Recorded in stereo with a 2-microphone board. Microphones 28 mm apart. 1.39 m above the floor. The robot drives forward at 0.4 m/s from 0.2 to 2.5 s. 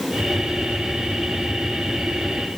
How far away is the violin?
No violin in this recording.